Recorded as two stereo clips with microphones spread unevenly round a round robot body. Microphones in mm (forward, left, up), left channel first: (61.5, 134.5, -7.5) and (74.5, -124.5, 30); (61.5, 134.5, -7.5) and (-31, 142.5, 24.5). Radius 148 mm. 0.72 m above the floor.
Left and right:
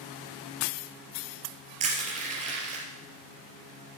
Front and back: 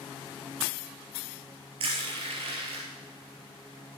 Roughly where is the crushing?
Behind right.